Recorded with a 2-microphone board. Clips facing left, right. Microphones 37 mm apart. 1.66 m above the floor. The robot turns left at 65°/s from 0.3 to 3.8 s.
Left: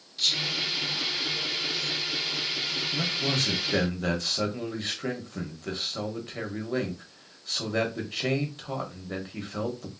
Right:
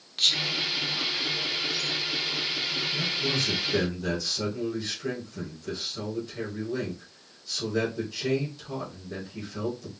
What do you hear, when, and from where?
0.2 s whispering: 55° right (ahead or behind), 1.1 m; by 1.9 s 35° left (ahead or behind), 1.1 m
2.9 s a man speaking: 110° left, 1.1 m; by 9.9 s 50° left, 1.1 m